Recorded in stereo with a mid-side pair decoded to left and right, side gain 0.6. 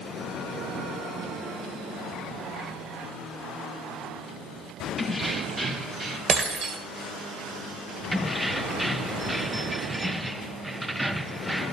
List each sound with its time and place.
5.0 s keys jangling: 5° left, 1.3 m; by 6.2 s 40° right, 2.0 m
6.3 s breaking glass: 40° right, 2.5 m
8.1 s keys jangling: 5° right, 0.6 m